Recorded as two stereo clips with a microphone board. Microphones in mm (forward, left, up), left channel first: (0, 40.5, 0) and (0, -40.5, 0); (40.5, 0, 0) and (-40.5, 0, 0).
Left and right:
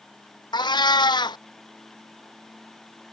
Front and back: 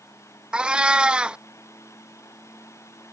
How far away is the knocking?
No knocking in this recording.